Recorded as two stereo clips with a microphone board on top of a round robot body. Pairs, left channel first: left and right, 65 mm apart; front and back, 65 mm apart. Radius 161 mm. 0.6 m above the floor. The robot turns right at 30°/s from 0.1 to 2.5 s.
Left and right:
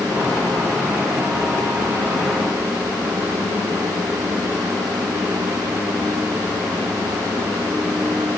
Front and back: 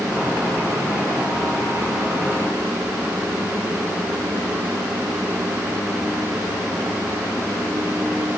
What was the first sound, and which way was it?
Only background noise.